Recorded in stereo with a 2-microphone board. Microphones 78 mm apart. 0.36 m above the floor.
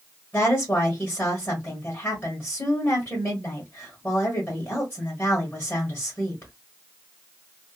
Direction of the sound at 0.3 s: 30° left (ahead or behind).